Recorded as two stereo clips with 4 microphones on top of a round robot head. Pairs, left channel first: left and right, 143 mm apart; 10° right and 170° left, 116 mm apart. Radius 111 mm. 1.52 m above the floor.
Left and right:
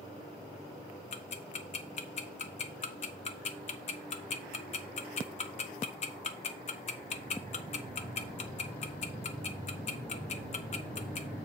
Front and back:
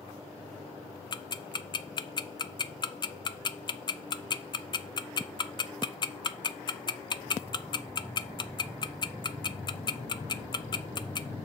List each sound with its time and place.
1.1 s ticking: 45° left, 0.7 m